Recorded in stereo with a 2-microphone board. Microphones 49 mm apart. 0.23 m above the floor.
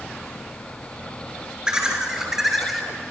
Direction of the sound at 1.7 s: 20° right (ahead or behind).